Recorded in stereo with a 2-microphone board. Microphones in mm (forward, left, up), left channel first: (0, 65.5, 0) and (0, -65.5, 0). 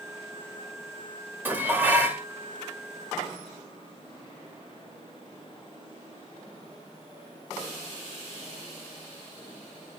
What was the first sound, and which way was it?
Dishes clattering, 15° right (ahead or behind).